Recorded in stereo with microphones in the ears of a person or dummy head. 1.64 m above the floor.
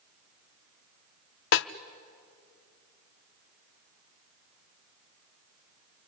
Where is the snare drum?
65° left (ahead or behind), 0.6 m.